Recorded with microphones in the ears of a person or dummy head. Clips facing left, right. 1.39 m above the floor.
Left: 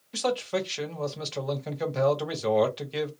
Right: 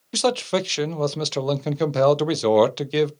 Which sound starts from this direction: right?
A man speaking, at 0.1 s.